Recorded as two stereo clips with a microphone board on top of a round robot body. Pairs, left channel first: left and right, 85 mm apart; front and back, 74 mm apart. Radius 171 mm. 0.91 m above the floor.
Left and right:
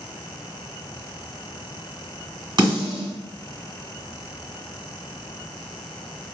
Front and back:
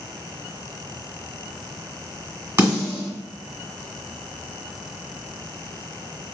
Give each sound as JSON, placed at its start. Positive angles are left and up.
{"t": 2.6, "sound": "a snare drum", "azimuth_deg": -130, "distance_m": 1.7}